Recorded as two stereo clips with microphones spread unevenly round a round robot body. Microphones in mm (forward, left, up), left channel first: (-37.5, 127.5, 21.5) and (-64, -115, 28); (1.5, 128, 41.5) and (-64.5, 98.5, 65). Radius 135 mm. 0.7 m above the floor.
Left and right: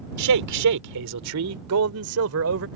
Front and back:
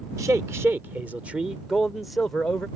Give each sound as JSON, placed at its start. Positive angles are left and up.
{"t": 0.2, "sound": "a man speaking", "azimuth_deg": -90}